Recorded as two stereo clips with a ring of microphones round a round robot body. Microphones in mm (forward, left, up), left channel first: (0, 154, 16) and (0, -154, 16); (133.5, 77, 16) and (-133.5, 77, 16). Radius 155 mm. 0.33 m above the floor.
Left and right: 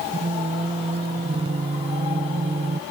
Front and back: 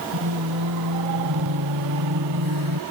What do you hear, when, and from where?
0.1 s singing: 160° right